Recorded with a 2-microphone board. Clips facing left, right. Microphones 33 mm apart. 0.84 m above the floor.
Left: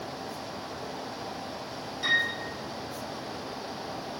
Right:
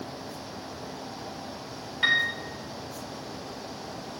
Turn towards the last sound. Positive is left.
turn(degrees=-45)  # may be behind; listen again after turning